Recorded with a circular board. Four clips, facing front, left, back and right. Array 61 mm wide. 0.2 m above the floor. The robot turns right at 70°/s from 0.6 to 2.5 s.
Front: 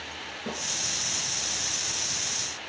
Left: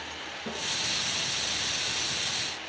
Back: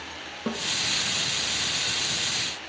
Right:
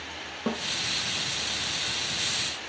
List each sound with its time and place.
0.5 s a snare drum: 130° right, 3 m; by 0.6 s 125° right, 3 m